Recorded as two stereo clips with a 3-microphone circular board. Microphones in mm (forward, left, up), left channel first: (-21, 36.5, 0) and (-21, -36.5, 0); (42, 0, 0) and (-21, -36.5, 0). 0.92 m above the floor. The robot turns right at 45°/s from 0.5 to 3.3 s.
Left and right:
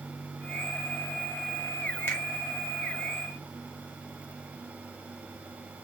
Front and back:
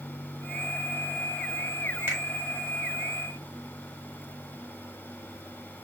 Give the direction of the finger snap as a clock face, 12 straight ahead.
7 o'clock.